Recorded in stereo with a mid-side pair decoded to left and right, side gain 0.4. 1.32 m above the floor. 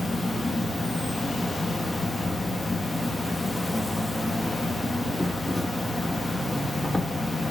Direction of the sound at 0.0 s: 20° left.